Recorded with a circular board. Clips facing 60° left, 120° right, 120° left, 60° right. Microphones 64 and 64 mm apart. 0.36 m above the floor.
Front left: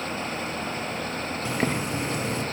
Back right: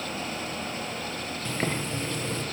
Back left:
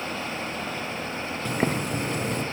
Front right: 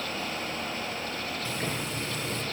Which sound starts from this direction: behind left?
Boiling, at 1.4 s.